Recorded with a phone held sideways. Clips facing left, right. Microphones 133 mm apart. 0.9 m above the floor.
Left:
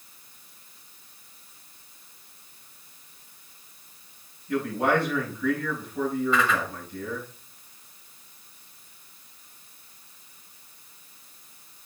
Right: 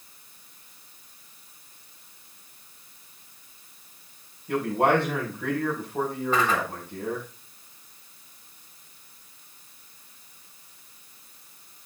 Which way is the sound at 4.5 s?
70° right (ahead or behind).